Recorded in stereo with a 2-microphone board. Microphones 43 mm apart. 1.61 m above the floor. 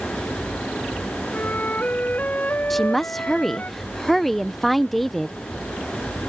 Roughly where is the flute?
Left.